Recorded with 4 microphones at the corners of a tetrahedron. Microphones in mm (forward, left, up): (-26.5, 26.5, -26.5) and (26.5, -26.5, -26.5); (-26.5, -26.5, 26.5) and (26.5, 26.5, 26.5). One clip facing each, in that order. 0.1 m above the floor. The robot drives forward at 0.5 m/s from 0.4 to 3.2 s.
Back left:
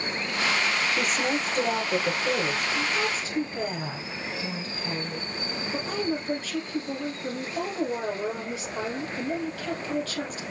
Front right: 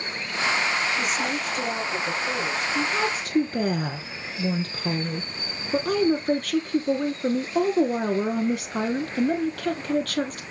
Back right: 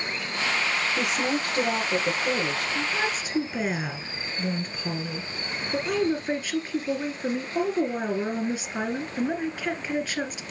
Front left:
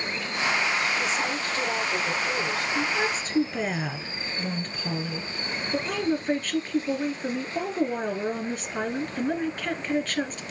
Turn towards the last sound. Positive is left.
turn(degrees=-55)